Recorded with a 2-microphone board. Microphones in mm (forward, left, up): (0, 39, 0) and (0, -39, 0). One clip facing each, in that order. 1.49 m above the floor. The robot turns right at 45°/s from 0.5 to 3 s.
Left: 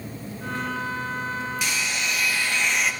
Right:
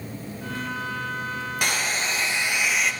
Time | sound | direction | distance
1.6 | a hair dryer | 55° right | 0.7 m